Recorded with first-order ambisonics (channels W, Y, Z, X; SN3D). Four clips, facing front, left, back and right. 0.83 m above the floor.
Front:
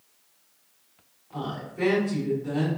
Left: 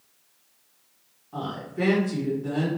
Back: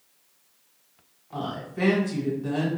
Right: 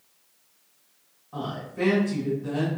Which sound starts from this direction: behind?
A woman speaking, at 1.3 s.